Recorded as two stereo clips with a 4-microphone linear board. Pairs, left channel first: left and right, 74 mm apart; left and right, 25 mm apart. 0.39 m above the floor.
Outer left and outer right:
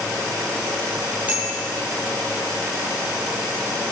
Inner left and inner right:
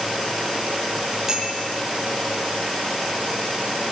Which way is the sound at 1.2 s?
25° right (ahead or behind).